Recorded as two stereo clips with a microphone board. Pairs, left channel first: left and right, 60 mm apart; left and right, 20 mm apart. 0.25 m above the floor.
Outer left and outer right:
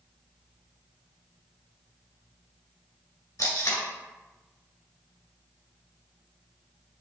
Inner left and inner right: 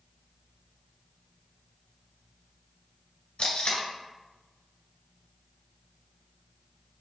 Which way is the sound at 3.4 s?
70° left (ahead or behind).